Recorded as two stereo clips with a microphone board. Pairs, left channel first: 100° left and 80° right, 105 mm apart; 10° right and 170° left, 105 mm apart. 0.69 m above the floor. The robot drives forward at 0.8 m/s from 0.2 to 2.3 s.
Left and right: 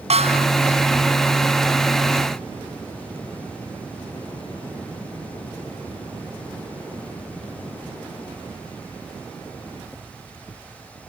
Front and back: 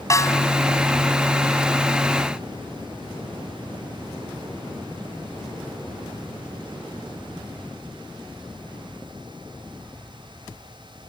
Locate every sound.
0.1 s a snare drum: 70° right; by 0.5 s 75° right